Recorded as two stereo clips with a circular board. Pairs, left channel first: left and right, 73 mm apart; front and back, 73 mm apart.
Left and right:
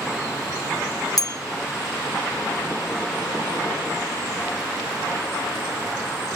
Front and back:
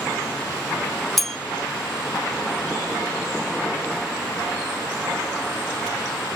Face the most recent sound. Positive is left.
turn(degrees=85)